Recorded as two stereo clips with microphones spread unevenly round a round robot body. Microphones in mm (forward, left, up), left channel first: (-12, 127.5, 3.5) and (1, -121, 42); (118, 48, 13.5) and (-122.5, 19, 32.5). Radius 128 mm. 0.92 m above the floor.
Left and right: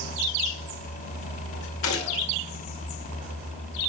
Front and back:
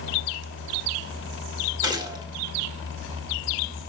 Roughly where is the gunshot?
Left.